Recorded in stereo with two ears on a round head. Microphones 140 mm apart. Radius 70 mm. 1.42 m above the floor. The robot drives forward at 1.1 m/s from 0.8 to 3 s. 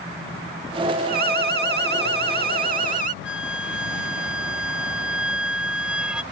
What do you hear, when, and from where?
1.1 s an alarm: 60° right (ahead or behind); by 3.1 s 55° right (ahead or behind)
3.2 s a flute: 5° right (ahead or behind)